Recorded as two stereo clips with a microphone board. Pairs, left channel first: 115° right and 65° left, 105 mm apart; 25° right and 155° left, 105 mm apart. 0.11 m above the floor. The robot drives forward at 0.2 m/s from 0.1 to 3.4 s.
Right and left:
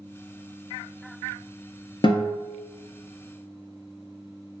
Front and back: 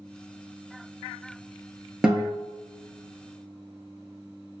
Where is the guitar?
120° right, 0.6 m; by 2.3 s 125° right, 0.6 m.